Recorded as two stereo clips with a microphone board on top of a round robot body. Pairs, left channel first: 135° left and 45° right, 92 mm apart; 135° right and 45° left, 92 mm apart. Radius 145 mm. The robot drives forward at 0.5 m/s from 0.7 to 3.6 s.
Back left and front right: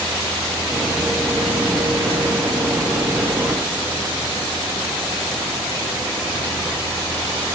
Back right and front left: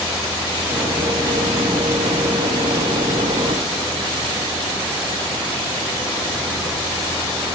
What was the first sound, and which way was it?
Only background noise.